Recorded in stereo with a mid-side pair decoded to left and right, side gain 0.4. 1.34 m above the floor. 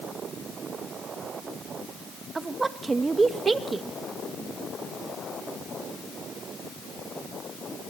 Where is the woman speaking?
30° right, 2 m.